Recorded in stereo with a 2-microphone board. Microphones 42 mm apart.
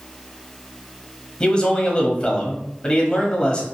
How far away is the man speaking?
About 1.2 m.